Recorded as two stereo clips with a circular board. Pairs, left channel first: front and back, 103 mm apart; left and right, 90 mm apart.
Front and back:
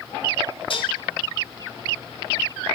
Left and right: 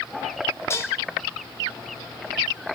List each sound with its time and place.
0.7 s dishes clattering: 30° left, 2.5 m